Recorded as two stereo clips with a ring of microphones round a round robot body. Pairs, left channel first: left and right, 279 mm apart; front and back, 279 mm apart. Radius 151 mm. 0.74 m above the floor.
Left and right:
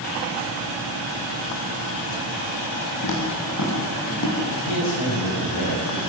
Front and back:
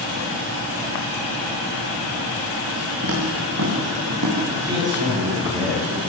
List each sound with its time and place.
3.0 s footsteps: 125° left, 7 m; by 4.4 s 135° left, 8 m
4.5 s a man speaking: 100° left, 7.5 m